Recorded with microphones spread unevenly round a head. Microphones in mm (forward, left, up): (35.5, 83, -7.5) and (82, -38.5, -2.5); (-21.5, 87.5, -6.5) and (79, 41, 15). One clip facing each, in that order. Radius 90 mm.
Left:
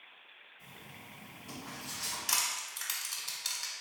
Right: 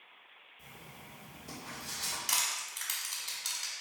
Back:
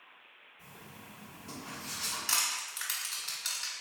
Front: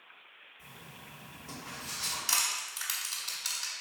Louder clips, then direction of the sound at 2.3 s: Left 2 dB, front 1 dB; 35° left.